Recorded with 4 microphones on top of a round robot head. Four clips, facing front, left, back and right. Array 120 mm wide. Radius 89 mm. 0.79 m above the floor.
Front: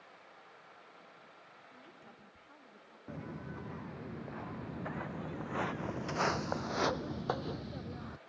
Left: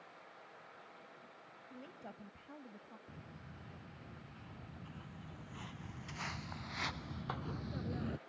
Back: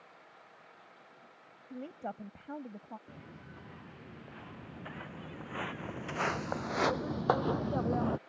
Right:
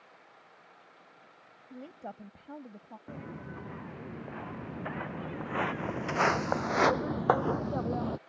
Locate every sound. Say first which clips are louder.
1.7 s a woman speaking: right 9 dB, back 20 dB; 155° right; by 3.0 s 150° right
3.1 s footsteps: right 12 dB, front 7 dB; 65° right; by 8.2 s 150° right